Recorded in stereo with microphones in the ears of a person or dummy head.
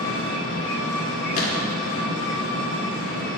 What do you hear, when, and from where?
0.0 s an engine running: 70° left (ahead or behind), 3.5 m
1.3 s a gunshot: 45° left (ahead or behind), 2 m